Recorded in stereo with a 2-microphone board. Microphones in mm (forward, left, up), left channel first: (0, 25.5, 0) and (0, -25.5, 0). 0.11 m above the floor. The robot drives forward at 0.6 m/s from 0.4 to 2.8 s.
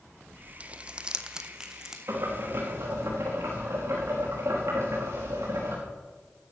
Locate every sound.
0.6 s crumpling: 25° right (ahead or behind), 0.6 m; by 2.0 s 10° right (ahead or behind), 1.4 m
2.1 s boiling: 70° right (ahead or behind), 5.5 m; by 5.8 s 65° right (ahead or behind), 5.5 m